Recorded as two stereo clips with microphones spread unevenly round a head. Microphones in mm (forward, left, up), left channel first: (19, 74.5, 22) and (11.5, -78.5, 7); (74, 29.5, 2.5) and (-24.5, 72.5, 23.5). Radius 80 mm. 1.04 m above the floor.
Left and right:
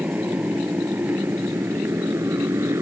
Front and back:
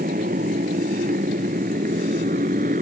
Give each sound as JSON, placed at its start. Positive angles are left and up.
{"t": 0.0, "sound": "a motorcycle", "azimuth_deg": -175}